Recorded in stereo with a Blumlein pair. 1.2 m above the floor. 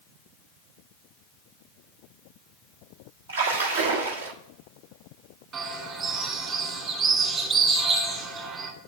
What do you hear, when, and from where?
3.3 s a splash: 65° right, 1.4 m
5.5 s a bird: 25° right, 2 m